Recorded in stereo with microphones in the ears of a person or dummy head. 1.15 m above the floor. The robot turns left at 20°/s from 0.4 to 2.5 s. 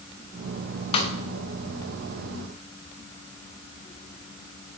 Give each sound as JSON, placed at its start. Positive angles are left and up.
{"t": 0.9, "sound": "a snare drum", "side_deg": 30, "distance_m": 0.8}